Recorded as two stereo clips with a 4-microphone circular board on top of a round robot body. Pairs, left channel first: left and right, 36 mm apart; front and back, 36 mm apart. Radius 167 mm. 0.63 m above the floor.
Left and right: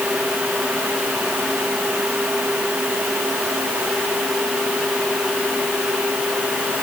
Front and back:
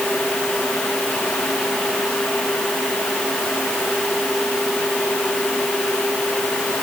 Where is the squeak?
I don't hear a squeak.